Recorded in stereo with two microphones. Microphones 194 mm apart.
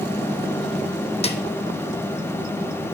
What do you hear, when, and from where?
1.2 s a snare drum: 35° left (ahead or behind), 0.8 m